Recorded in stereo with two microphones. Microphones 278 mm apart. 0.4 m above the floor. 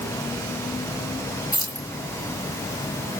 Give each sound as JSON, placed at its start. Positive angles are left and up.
{"t": 1.5, "sound": "keys jangling", "side_deg": 80, "distance_m": 4.0}